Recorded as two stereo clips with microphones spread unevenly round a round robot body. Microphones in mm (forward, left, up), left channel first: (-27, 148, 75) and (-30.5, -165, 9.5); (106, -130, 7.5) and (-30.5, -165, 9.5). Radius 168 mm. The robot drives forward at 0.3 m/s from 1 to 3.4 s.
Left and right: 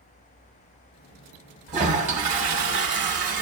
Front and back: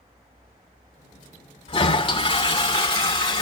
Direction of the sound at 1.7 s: 30° right.